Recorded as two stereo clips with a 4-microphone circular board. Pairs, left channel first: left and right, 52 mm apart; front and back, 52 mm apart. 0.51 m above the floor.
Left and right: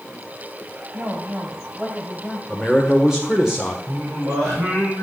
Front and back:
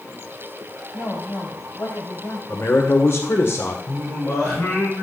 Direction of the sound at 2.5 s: 10° right.